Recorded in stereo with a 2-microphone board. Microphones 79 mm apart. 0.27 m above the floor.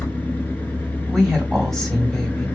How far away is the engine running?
About 1.0 m.